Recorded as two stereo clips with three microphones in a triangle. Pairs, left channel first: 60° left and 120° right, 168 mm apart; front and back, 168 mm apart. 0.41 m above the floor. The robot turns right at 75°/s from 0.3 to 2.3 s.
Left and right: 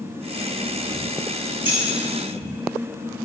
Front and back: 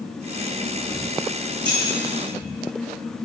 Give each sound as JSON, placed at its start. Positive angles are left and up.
{"t": 1.6, "sound": "keys jangling", "azimuth_deg": -130, "distance_m": 1.0}